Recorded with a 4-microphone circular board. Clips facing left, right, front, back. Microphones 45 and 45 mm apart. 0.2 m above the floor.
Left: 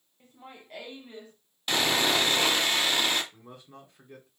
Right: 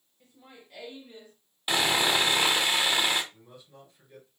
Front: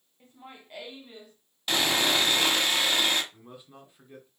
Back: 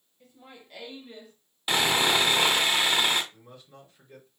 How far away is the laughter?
About 1.4 m.